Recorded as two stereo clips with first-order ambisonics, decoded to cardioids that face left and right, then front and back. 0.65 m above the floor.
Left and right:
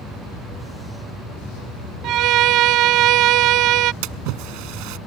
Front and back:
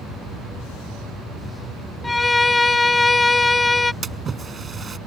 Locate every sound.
2.0 s a violin: 75° right
4.0 s a splash: 110° right